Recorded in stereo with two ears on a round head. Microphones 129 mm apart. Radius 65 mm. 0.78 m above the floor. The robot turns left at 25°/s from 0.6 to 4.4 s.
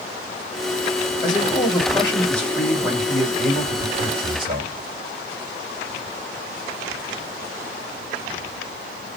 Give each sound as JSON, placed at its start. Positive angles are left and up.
{"t": 1.2, "sound": "a man speaking", "azimuth_deg": 35, "distance_m": 3.5}